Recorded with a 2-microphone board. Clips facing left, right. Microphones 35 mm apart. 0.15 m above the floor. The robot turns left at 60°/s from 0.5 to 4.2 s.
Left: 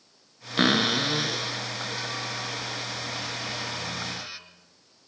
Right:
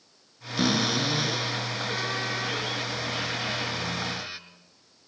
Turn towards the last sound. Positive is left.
turn(degrees=-170)